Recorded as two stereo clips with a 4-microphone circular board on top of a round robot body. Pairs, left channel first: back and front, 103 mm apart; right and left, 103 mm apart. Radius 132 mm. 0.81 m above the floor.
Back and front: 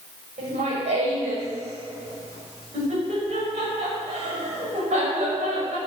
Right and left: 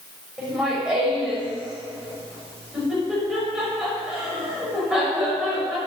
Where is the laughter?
5° left, 5.5 m.